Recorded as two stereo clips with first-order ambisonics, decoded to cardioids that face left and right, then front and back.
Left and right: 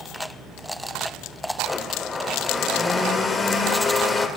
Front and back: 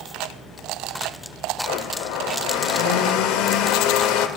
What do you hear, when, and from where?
1.6 s a blender: 20° left, 0.8 m